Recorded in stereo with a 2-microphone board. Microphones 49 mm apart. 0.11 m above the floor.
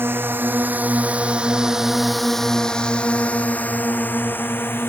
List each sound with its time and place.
0.0 s a drone: 50° right (ahead or behind); by 4.9 s 50° left (ahead or behind)